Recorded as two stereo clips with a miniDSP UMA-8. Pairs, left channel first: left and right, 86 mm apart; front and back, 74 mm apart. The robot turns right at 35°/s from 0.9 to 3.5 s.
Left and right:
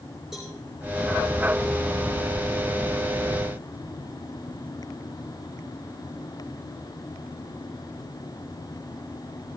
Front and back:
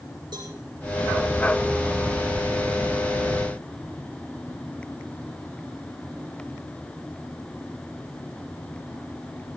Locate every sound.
0.3 s a cowbell: 175° right, 6 m